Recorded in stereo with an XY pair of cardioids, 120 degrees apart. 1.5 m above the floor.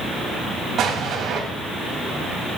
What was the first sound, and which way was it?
An explosion, 50° right.